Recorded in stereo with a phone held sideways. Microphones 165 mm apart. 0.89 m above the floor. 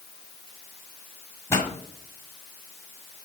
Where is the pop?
15° left (ahead or behind), 1.9 m.